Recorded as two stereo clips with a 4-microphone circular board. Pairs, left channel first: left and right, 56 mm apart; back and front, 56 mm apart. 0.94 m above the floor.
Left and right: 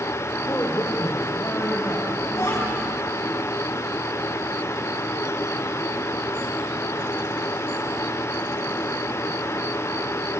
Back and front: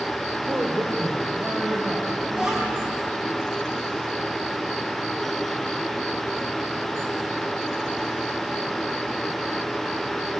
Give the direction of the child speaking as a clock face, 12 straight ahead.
9 o'clock.